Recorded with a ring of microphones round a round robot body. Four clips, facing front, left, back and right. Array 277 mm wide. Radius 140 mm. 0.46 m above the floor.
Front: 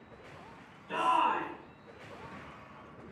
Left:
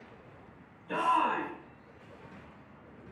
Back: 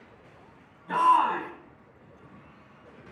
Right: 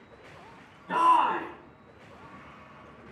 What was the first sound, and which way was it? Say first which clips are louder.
A shout: right 6 dB, back 7 dB; 135° right.